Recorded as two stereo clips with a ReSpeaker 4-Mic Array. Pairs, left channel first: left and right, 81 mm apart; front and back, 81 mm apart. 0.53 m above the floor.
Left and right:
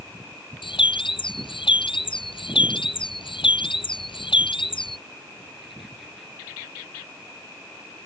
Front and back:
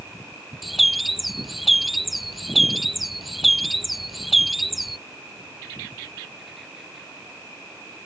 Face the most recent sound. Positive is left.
turn(degrees=90)